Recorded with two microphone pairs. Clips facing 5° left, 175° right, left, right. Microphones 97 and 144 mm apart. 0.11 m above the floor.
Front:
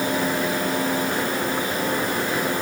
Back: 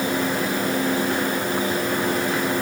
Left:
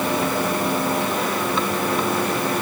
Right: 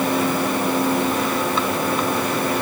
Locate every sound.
Only background noise.